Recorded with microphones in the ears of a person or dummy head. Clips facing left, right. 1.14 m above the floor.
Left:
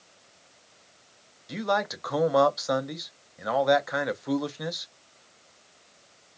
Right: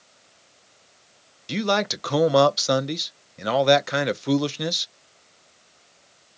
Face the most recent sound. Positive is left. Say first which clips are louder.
# right 4 dB
turn(degrees=-40)  # may be behind; listen again after turning